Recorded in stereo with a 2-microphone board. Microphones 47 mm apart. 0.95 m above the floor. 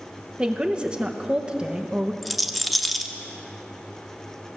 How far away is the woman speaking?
About 0.7 m.